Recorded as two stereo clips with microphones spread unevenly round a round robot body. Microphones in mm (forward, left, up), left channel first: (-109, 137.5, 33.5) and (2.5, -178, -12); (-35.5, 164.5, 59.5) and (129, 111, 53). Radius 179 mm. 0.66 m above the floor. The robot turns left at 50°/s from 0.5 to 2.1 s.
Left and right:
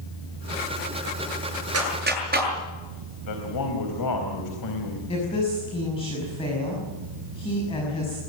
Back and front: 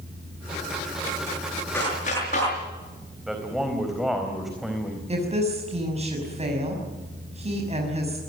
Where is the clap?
115° right, 7.5 m; by 2.5 s 135° right, 7.5 m.